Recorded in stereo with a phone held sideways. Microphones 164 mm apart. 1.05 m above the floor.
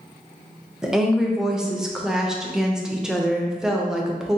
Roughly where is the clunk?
No clunk in this recording.